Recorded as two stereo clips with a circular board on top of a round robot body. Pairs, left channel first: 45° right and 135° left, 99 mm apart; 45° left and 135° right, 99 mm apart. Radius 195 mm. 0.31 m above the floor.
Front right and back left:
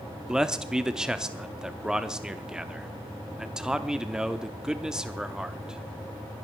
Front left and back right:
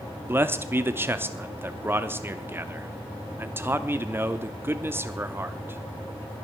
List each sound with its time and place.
0.3 s a man speaking: 150° right, 1.0 m